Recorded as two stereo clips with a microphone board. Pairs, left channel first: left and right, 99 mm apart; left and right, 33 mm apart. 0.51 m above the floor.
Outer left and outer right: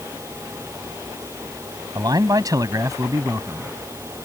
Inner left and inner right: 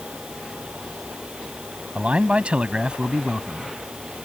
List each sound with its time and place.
1.9 s a man speaking: 40° right (ahead or behind); by 3.7 s 30° right (ahead or behind)